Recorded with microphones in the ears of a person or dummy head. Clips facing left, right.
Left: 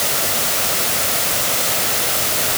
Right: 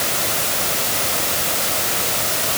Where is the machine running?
No machine running in this recording.